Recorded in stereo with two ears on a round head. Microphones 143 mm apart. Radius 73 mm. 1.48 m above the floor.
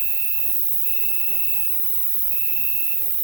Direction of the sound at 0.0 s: 25° right (ahead or behind).